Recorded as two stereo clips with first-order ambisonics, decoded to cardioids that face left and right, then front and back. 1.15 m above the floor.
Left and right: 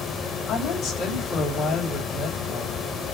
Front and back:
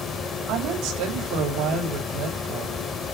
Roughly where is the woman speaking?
Behind left.